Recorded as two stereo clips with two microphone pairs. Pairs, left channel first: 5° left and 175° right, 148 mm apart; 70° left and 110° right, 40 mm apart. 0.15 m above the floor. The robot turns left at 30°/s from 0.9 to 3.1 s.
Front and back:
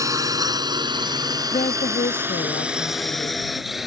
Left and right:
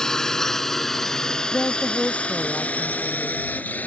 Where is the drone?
130° left; by 3.9 s 95° left.